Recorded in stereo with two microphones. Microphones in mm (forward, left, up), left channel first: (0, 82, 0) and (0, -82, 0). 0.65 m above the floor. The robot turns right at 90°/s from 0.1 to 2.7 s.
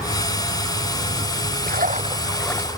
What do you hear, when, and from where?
1.7 s a splash: 70° right; by 2.8 s 20° left